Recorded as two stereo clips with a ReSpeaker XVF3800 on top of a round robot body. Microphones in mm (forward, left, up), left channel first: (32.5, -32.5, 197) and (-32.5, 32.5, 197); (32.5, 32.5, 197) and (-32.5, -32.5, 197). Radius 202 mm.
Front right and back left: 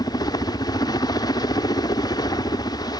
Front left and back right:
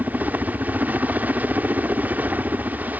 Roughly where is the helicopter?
Right.